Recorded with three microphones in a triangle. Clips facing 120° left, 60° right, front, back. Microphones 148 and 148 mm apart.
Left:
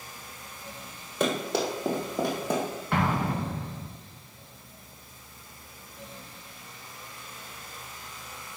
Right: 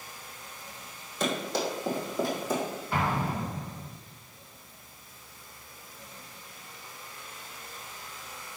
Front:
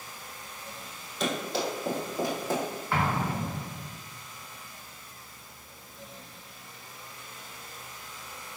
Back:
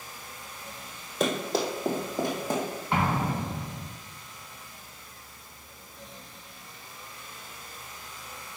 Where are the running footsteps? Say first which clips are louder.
Left 3 dB, back 3 dB; 140° left, 2.5 m; by 2.6 s 105° left, 3 m.